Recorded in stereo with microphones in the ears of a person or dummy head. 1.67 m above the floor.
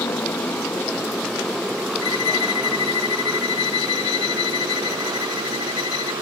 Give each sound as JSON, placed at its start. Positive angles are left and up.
{"t": 0.0, "sound": "a motorcycle", "side_deg": 10}
{"t": 2.0, "sound": "a violin", "side_deg": 85}